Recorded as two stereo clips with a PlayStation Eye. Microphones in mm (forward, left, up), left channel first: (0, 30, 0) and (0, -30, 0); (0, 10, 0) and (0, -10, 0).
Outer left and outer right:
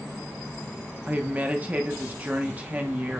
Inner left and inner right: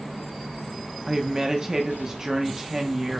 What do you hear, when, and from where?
1.1 s a woman speaking: 25° right (ahead or behind), 0.9 m